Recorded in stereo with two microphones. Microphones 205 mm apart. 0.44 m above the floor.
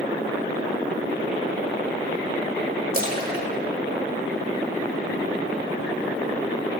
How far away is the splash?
About 1.3 m.